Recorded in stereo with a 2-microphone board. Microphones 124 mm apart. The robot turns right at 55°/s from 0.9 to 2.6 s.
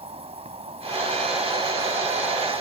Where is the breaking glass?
No breaking glass in this recording.